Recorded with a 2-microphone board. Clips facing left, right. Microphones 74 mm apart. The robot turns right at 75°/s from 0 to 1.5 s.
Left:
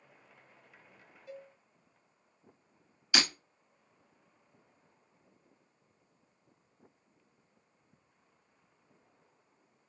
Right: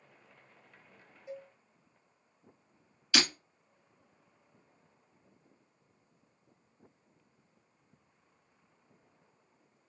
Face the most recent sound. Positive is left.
turn(degrees=20)  # may be behind; listen again after turning